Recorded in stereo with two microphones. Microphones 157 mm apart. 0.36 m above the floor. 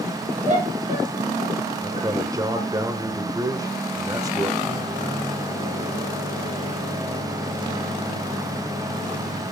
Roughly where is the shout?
Right.